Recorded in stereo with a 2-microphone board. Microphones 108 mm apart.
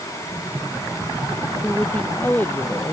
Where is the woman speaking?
10° left (ahead or behind); by 2.9 s 25° left (ahead or behind).